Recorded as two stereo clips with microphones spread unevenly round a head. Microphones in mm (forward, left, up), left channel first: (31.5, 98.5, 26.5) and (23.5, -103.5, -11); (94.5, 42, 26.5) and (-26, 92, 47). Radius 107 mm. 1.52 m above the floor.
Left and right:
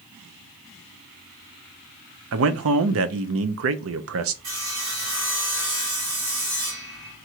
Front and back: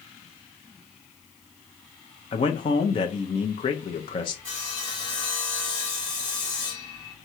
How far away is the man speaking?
About 0.6 m.